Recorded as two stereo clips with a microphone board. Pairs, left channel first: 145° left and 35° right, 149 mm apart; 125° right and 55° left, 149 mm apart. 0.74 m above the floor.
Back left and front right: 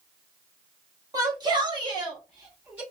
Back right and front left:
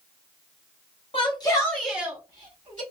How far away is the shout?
About 1.0 m.